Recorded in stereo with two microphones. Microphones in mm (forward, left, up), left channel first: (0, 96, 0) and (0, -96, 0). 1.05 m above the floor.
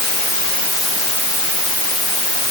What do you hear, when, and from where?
Only background noise.